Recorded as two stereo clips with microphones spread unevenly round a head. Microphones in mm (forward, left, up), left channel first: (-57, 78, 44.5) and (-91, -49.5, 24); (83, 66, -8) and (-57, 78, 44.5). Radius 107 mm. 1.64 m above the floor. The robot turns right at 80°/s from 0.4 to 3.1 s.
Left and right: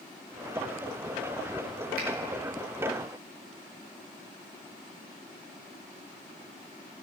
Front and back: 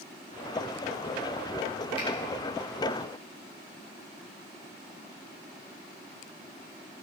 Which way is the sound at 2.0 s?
75° right.